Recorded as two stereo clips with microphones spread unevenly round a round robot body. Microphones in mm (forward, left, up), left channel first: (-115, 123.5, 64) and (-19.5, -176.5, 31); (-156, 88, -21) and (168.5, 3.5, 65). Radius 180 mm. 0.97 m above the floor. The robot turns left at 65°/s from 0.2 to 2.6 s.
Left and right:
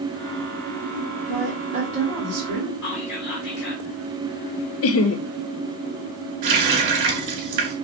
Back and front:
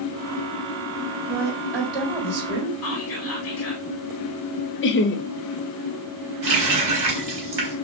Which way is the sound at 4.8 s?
145° left.